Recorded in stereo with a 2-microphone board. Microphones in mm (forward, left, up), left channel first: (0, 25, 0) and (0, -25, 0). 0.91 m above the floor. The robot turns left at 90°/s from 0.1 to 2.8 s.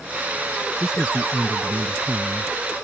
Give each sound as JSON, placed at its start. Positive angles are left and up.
{"t": 0.8, "sound": "a man speaking", "azimuth_deg": -5}